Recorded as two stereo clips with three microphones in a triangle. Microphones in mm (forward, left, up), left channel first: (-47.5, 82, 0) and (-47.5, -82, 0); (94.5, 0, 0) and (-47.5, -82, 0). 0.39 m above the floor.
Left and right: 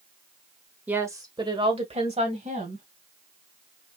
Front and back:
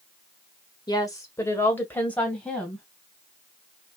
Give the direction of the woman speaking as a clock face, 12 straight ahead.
1 o'clock.